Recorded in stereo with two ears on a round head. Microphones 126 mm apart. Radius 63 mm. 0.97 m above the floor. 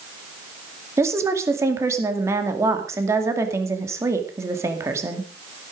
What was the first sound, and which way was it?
A woman speaking, 20° right (ahead or behind).